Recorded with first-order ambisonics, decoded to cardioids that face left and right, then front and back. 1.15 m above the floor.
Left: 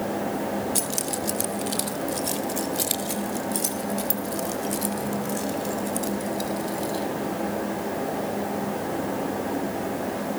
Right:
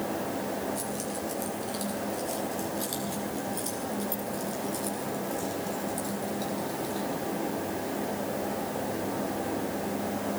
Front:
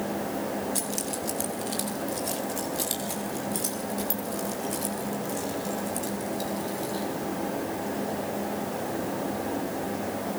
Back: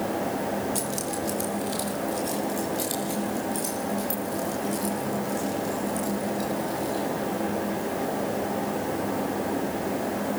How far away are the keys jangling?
About 1.8 m.